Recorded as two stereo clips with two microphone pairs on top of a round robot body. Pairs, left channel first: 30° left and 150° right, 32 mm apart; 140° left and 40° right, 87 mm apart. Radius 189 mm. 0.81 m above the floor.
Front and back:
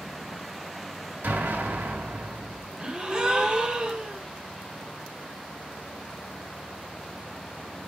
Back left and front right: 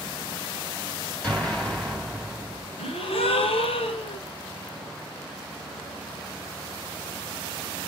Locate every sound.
1.2 s an explosion: 140° right, 4.5 m
2.8 s a gasp: 145° left, 1.5 m